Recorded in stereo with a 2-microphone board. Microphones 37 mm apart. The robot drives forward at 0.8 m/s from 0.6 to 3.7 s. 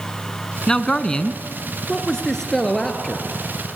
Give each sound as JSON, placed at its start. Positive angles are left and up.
{"t": 0.7, "sound": "a man speaking", "side_deg": 20, "distance_m": 1.1}